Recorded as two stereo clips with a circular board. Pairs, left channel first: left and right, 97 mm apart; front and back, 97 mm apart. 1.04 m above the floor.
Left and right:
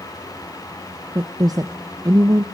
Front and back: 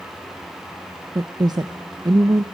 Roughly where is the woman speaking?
Behind right.